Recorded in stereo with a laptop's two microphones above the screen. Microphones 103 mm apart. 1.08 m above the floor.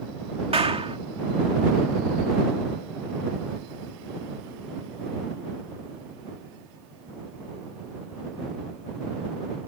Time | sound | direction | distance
0.5 | a clap | 70° right (ahead or behind) | ?